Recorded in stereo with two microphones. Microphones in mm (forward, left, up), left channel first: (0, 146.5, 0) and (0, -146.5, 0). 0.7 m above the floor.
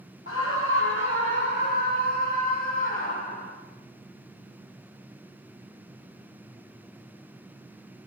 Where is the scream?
45° left (ahead or behind), 0.8 m; by 3.6 s 25° left (ahead or behind), 5 m.